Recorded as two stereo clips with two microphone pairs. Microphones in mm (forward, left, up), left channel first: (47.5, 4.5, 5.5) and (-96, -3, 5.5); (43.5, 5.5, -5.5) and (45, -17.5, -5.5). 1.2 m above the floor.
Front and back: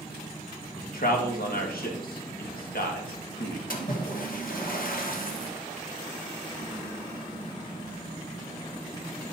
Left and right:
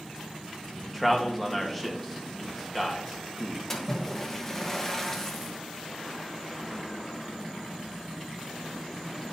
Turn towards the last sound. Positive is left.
turn(degrees=20)